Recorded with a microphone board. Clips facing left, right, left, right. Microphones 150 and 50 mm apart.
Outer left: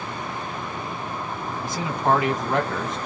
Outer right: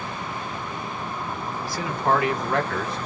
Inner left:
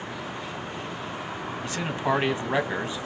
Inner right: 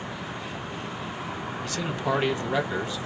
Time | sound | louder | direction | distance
1.6 | a man speaking | outer left 2 dB, inner left 2 dB | 20° left (ahead or behind) | 1.3 m